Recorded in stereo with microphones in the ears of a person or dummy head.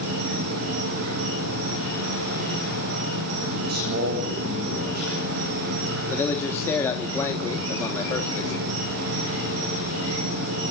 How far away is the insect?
About 8.5 m.